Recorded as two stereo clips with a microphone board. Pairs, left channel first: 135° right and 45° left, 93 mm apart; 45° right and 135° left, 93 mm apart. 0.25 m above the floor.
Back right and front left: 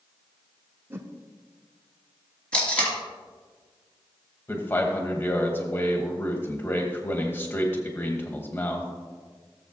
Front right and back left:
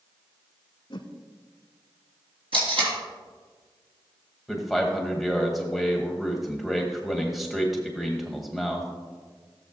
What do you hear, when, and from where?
0.9 s a whoosh: 20° right, 0.8 m
2.5 s tape being pulled: 145° left, 3.5 m
4.5 s a man speaking: 135° right, 1.2 m